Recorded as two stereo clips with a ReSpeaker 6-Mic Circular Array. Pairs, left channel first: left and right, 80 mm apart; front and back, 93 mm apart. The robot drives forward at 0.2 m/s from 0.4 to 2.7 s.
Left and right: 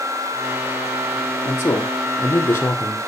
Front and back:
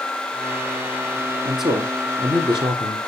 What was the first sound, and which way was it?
A man speaking, 150° left.